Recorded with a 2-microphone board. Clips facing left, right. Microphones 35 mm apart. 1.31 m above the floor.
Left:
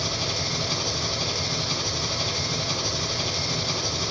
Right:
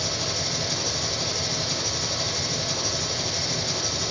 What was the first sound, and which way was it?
An engine running, 25° left (ahead or behind).